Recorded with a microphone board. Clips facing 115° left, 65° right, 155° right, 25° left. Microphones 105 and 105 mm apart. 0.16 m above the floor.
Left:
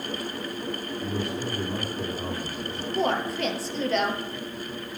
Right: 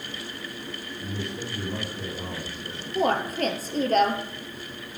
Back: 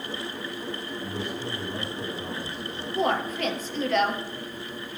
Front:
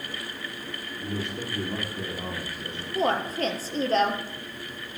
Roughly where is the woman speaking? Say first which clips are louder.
Right 2 dB, even; ahead right.